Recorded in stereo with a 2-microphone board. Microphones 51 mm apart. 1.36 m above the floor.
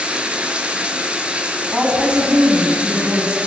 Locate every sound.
0.0 s running water: 25° right (ahead or behind), 3.5 m
1.7 s a woman speaking: 25° right (ahead or behind), 9.5 m